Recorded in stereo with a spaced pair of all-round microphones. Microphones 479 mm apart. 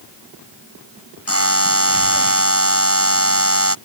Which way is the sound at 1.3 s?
25° right (ahead or behind).